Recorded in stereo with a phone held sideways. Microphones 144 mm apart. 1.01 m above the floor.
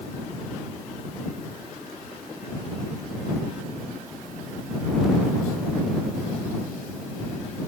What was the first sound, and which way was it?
Only background noise.